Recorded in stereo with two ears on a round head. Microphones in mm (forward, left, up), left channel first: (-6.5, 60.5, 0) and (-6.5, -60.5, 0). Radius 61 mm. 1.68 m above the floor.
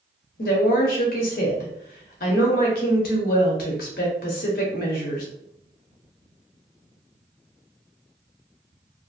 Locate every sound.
0.4 s a woman speaking: 70° left (ahead or behind), 0.9 m